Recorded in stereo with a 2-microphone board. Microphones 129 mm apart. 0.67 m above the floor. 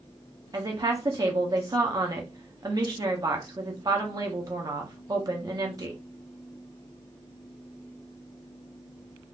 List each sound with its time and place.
0.5 s a woman speaking: 30° right (ahead or behind), 0.8 m